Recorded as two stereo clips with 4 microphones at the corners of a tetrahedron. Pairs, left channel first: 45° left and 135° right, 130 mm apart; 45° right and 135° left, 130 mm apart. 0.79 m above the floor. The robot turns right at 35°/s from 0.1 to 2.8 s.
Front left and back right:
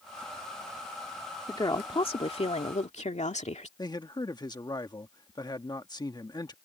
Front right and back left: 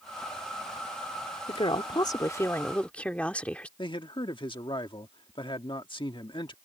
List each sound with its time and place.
1.5 s a woman speaking: 10° right; by 3.7 s 35° left
3.8 s a man speaking: 5° right